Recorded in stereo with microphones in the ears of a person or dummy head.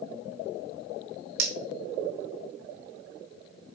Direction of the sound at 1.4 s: 60° right (ahead or behind).